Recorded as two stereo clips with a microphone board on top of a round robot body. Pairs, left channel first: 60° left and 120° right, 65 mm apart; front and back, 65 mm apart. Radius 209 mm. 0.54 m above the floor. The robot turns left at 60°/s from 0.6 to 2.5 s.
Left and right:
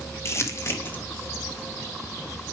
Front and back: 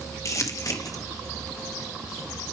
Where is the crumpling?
25° left, 1.4 m; by 1.0 s straight ahead, 1.4 m.